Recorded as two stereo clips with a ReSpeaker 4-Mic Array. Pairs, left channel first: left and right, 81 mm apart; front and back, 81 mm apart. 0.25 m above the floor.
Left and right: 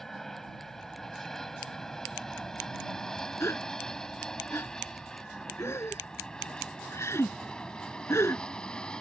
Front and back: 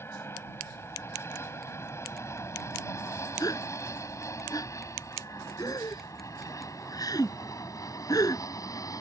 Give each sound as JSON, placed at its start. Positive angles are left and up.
{"t": 0.0, "sound": "an aircraft", "azimuth_deg": 10}
{"t": 3.4, "sound": "a gasp", "azimuth_deg": 35}